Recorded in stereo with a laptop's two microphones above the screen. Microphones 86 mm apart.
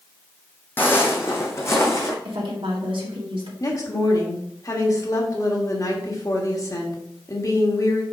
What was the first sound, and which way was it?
Footsteps, 25° left (ahead or behind).